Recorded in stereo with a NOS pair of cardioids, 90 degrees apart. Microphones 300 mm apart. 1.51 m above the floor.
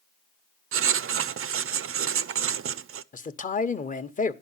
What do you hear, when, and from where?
0.7 s writing: 45° right, 0.6 m
3.1 s a man speaking: 25° left, 1.1 m